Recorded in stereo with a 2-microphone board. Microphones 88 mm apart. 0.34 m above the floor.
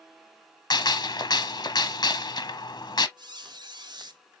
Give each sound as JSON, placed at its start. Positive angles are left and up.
{"t": 0.7, "sound": "a gunshot", "side_deg": 50, "distance_m": 1.0}
{"t": 3.2, "sound": "a squeak", "side_deg": -55, "distance_m": 0.8}